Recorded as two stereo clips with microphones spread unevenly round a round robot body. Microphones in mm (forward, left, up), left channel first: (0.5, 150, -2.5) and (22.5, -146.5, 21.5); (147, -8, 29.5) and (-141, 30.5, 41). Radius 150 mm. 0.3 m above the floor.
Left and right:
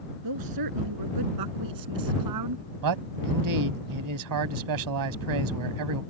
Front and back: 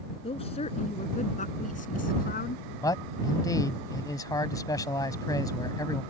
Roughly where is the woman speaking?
Right.